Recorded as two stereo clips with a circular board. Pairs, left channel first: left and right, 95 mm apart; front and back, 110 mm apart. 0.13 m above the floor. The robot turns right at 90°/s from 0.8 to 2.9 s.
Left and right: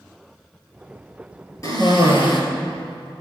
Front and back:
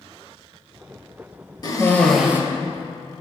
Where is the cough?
45° left, 2.5 m; by 2.4 s 115° left, 2.5 m.